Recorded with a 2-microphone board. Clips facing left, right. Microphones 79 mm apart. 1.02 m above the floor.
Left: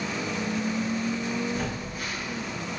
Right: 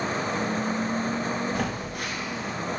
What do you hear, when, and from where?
1.6 s a phone buzzing: 85° right, 1.0 m